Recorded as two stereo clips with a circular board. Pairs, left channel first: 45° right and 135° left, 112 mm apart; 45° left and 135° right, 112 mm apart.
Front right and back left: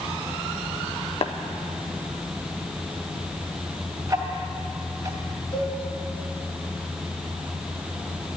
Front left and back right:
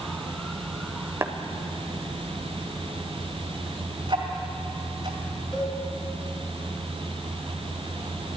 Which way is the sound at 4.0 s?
170° right.